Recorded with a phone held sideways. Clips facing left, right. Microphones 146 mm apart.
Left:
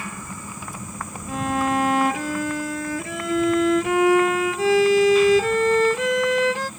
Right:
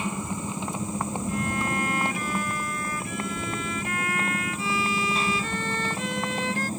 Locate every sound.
0.0 s a motorcycle: 20° right (ahead or behind); by 6.8 s 35° right (ahead or behind)
1.3 s a violin: 85° left